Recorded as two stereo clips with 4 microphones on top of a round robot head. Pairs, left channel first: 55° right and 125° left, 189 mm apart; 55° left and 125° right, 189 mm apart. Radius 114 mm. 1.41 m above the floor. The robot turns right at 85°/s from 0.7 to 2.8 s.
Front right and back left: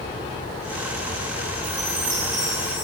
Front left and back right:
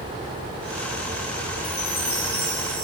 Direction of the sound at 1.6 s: 115° left.